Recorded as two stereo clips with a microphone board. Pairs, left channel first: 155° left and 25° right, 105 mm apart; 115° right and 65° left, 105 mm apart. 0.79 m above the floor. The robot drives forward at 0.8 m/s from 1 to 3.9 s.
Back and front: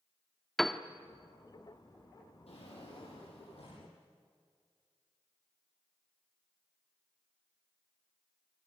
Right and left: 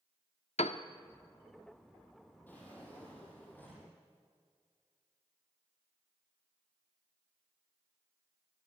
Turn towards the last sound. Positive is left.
turn(degrees=175)